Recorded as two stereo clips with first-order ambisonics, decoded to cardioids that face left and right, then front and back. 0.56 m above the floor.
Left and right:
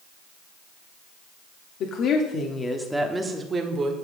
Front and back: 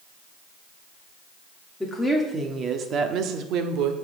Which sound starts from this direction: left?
A woman speaking, at 1.8 s.